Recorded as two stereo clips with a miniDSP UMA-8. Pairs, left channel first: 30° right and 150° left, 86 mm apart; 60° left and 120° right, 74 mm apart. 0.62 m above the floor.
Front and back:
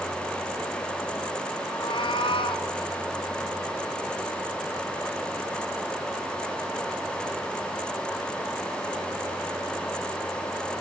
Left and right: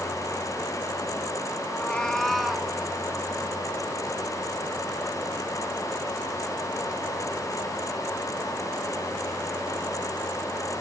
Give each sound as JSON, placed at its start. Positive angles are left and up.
{"t": 1.7, "sound": "a cat meowing", "azimuth_deg": -5, "distance_m": 1.6}